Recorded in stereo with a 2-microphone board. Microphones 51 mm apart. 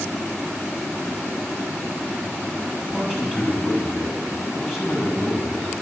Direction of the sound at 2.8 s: 5° right (ahead or behind).